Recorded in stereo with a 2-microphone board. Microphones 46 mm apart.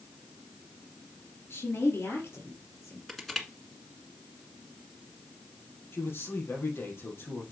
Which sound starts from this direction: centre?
Crushing, at 3.1 s.